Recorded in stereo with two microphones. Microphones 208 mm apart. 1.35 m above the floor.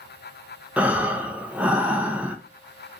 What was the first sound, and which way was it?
Breathing, 5° right (ahead or behind).